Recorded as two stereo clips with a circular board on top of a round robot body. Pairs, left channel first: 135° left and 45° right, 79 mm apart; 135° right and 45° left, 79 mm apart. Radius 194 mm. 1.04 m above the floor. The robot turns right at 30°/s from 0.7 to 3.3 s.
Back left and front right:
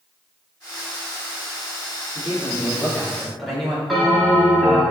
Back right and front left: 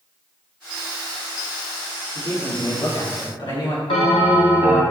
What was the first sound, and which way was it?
A man speaking, 170° right.